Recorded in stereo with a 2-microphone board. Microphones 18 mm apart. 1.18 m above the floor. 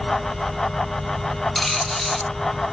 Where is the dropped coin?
Centre (ahead or behind), 0.9 m.